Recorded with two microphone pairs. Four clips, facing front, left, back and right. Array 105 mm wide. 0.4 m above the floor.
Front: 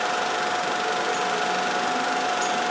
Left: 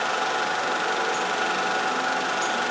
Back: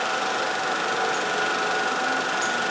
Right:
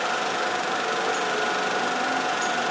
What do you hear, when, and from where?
Only background noise.